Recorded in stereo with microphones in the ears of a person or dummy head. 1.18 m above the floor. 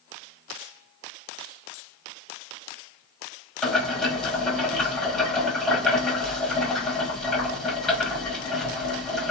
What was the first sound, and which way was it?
Boiling, 5° left (ahead or behind).